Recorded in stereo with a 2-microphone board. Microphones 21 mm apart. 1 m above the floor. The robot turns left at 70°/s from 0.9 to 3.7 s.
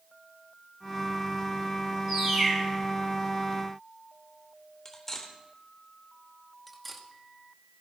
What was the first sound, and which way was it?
A bird, 120° right.